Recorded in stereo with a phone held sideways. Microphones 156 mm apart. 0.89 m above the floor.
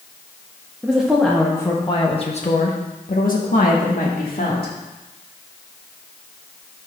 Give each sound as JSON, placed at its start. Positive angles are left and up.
{"t": 0.8, "sound": "a woman speaking", "side_deg": -10, "distance_m": 1.3}